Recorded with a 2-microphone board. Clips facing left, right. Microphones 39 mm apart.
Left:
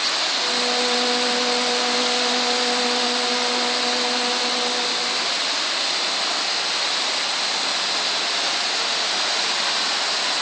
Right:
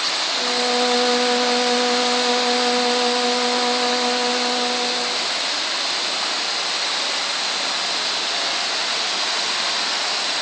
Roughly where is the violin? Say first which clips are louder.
Right 5 dB; centre.